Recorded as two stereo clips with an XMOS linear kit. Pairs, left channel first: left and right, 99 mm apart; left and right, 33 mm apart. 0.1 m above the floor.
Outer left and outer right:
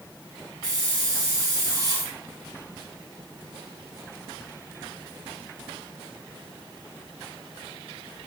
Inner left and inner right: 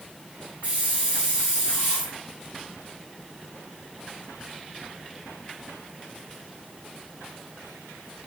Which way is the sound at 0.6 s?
40° right (ahead or behind).